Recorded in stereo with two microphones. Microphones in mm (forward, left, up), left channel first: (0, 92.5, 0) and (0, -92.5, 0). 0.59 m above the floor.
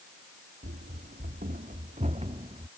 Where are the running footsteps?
60° right (ahead or behind); by 2.7 s 30° right (ahead or behind).